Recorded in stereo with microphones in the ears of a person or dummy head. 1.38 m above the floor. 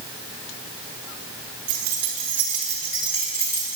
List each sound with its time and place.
1.7 s keys jangling: 25° right (ahead or behind), 1.6 m; by 3.8 s 55° left (ahead or behind), 2.5 m